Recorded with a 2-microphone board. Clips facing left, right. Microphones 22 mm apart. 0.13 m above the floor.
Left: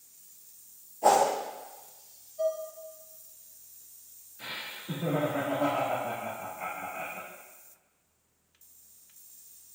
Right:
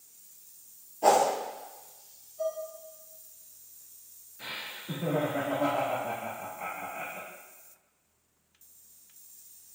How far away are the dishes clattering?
About 1.0 m.